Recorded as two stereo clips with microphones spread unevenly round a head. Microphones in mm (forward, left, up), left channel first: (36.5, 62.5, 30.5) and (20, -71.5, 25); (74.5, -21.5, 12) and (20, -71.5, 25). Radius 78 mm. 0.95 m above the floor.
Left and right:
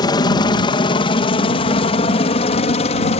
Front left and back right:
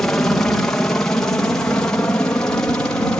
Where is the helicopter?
105° left; by 3.2 s 110° left.